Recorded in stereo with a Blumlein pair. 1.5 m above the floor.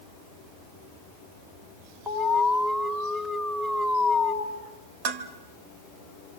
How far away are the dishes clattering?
About 2.0 m.